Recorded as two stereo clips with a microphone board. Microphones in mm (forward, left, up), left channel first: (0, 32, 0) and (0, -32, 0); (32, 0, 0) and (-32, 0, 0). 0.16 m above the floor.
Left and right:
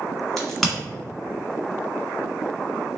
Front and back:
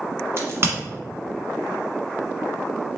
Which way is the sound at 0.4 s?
175° left.